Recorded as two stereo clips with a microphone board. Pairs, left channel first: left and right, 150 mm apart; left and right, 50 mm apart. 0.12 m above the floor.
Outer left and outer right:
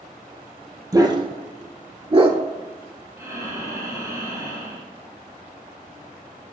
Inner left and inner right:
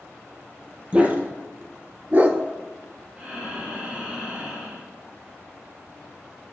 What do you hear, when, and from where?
0.9 s a dog barking: 25° right (ahead or behind), 1.1 m; by 2.4 s 30° right (ahead or behind), 0.9 m
3.2 s breathing: 25° right (ahead or behind), 2.5 m